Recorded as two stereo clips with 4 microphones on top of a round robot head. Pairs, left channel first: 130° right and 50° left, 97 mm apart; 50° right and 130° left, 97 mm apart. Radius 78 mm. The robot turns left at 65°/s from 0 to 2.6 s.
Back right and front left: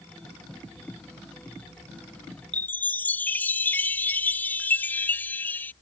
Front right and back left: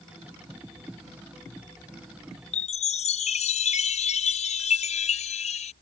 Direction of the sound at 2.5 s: 55° right.